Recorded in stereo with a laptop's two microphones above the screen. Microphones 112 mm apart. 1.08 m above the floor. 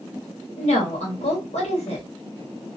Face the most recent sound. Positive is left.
turn(degrees=70)  # may be behind; listen again after turning